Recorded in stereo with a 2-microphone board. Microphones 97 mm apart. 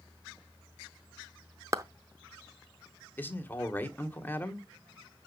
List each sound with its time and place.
1.7 s a clap: 35° right (ahead or behind), 0.6 m
3.2 s a man speaking: 20° left (ahead or behind), 1.4 m